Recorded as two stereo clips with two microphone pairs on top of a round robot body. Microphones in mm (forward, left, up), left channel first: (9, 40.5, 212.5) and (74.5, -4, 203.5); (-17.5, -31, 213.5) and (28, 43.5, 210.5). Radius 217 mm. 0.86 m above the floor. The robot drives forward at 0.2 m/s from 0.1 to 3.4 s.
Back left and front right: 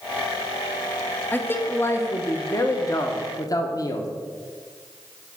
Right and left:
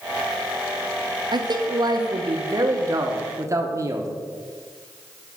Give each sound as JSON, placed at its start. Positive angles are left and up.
{"t": 1.3, "sound": "a man speaking", "azimuth_deg": 75, "distance_m": 1.1}